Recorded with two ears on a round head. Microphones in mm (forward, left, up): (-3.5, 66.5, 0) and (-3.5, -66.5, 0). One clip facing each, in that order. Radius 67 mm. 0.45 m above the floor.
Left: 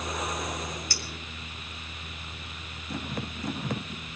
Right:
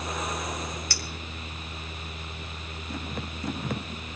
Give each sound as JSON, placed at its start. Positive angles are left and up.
{"t": 0.9, "sound": "a clink", "side_deg": -55, "distance_m": 1.9}